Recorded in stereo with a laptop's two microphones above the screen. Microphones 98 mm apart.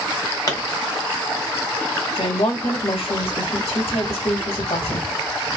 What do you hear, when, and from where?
0.5 s a pop: 40° left (ahead or behind), 0.9 m
2.1 s a woman speaking: 85° left, 1.7 m